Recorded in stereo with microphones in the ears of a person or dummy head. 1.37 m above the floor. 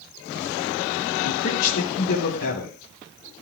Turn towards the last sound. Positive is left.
turn(degrees=80)